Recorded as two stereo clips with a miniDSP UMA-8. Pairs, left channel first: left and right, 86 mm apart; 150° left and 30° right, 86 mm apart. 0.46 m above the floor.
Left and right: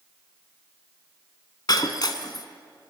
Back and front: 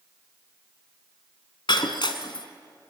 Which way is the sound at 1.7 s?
125° left.